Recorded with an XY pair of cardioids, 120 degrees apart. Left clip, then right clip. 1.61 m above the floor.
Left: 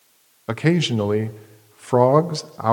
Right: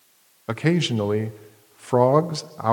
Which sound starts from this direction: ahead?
A man speaking, at 0.5 s.